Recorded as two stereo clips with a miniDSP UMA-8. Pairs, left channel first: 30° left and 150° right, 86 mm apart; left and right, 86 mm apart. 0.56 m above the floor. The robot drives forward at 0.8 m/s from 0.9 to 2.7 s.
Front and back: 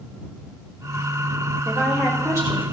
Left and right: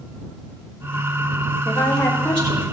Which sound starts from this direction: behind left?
A woman speaking, at 1.6 s.